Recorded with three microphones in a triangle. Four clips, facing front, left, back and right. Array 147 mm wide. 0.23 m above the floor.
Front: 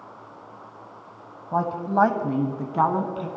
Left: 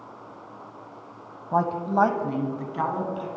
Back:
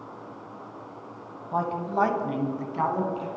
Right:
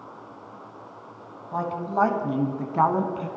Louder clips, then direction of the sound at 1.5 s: Left 3 dB, front 4 dB; 70° left.